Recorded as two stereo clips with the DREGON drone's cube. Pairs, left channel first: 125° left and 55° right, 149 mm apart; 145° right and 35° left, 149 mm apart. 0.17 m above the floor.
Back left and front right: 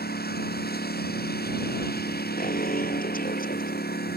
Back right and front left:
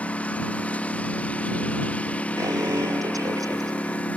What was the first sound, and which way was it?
A lawn mower, 135° left.